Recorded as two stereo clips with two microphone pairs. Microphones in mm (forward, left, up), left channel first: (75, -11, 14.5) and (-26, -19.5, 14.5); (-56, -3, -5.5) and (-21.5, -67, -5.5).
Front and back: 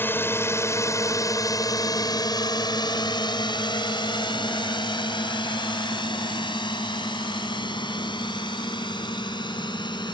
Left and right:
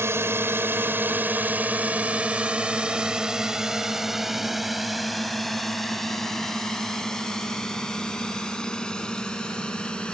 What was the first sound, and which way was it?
A drone, 50° right.